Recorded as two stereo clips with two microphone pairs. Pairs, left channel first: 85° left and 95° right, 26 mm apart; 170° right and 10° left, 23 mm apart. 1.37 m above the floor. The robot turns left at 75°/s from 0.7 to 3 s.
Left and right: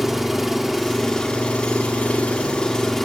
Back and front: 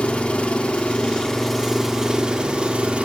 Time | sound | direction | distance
0.0 | an engine running | 175° left | 1.6 m